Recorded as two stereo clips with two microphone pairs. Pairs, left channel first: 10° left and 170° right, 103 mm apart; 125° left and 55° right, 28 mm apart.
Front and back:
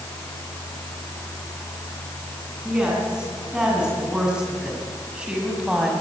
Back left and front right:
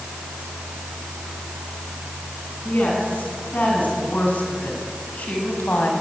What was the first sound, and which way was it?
A woman speaking, 110° left.